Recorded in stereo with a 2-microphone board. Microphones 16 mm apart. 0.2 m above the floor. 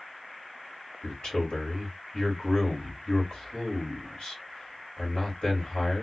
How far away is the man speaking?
About 2.5 m.